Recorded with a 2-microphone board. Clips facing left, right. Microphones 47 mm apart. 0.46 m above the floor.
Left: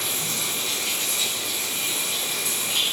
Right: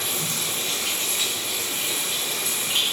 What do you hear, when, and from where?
0.0 s running water: 45° right (ahead or behind), 2.5 m